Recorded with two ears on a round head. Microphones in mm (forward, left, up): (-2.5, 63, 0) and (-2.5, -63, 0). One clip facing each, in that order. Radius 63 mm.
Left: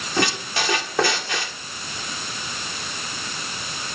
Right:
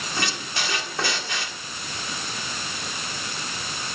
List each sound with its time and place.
0.2 s a squeak: 55° left (ahead or behind), 2 m